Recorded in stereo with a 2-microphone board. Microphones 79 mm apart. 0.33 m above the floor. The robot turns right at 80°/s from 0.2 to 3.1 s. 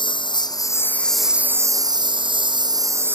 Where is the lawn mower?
100° left; by 3.1 s 30° right.